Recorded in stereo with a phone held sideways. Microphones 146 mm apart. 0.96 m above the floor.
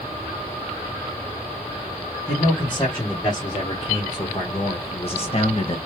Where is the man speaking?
25° left (ahead or behind), 1.8 m; by 5.8 s 40° left (ahead or behind), 0.9 m.